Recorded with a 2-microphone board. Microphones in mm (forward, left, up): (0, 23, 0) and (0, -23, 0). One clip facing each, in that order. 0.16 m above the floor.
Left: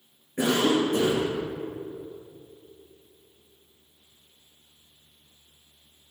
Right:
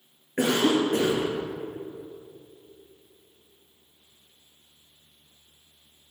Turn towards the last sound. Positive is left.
turn(degrees=-65)  # may be behind; listen again after turning